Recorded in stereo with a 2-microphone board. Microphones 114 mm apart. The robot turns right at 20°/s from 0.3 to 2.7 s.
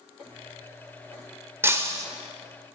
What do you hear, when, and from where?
1.6 s breaking glass: 20° right (ahead or behind), 2.5 m; by 2.0 s 30° right (ahead or behind), 2.5 m